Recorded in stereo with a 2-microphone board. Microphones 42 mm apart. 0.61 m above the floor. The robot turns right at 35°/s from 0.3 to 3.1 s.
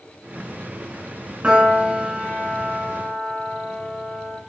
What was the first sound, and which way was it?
A piano, 35° right.